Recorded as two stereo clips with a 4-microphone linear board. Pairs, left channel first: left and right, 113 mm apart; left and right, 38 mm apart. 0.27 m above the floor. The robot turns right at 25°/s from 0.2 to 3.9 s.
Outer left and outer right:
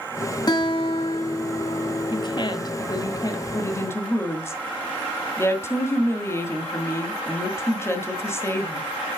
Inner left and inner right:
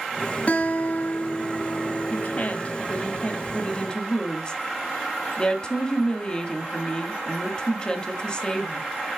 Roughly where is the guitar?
Ahead left.